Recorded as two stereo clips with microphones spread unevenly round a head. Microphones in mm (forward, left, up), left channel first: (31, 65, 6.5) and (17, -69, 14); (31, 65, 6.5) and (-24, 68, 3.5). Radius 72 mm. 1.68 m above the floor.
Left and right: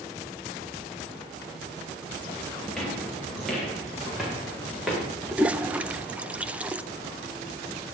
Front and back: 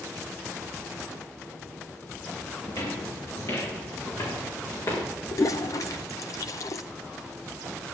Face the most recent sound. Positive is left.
turn(degrees=-20)